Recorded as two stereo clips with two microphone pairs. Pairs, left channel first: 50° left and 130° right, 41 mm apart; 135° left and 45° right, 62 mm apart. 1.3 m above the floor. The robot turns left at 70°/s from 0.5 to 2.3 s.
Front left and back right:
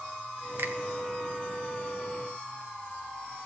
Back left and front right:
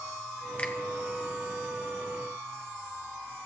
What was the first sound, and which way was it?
A finger snap, 155° right.